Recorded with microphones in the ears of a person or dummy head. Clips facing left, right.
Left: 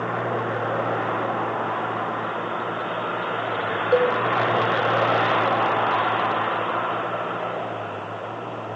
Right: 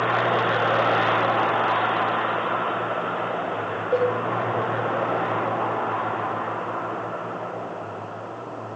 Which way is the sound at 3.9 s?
20° left (ahead or behind).